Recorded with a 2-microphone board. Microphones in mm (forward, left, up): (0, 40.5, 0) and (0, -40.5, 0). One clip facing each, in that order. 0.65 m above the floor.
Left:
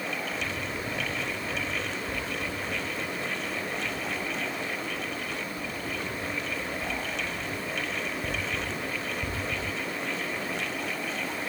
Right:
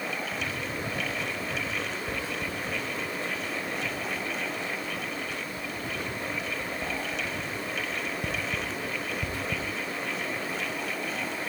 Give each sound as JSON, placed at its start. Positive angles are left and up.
{"t": 0.3, "sound": "writing", "side_deg": -85, "distance_m": 9.0}